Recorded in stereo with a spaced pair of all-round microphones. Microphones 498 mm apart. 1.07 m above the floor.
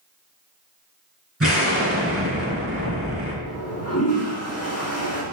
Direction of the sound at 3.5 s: 30° left (ahead or behind).